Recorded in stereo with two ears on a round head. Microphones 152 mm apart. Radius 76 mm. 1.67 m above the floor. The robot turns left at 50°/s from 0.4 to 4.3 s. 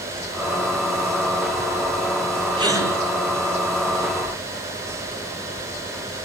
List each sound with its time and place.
2.6 s a gasp: 30° right (ahead or behind), 7.5 m; by 2.9 s 15° right (ahead or behind), 7.5 m